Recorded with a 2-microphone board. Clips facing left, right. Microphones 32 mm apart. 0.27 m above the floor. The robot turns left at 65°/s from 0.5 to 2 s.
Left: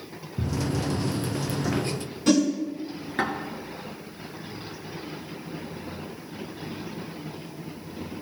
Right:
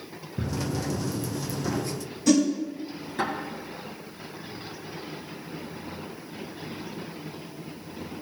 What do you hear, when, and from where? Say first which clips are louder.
0.4 s a drawer: left 2 dB; 55° right (ahead or behind), 1.9 m; by 3.3 s 40° left (ahead or behind), 1.9 m
2.3 s a whoosh: even; 50° left (ahead or behind), 2 m